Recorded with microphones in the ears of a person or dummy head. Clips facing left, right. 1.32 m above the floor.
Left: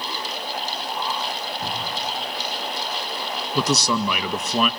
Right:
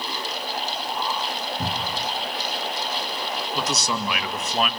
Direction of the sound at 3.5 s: 80° left.